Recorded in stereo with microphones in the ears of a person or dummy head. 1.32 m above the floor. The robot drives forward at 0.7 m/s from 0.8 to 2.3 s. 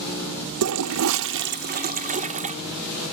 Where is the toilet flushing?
85° right, 0.8 m; by 2.5 s 40° right (ahead or behind), 1.3 m.